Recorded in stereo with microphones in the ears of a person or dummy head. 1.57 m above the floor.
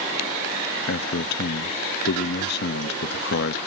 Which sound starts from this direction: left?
A man speaking, at 0.9 s.